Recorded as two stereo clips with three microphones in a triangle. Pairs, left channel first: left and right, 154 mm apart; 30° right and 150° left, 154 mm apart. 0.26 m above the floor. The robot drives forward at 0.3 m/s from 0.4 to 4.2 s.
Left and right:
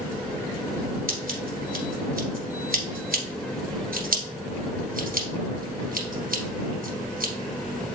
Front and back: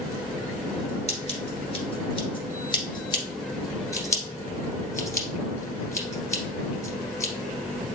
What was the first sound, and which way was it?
Scissors, 75° right.